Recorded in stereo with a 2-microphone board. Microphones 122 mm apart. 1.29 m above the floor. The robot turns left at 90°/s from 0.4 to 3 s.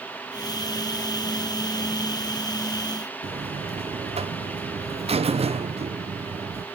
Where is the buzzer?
60° right (ahead or behind), 0.5 m.